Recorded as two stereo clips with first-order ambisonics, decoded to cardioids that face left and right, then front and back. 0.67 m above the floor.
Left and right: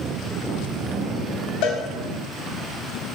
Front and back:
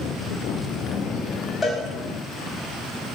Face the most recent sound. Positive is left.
turn(degrees=75)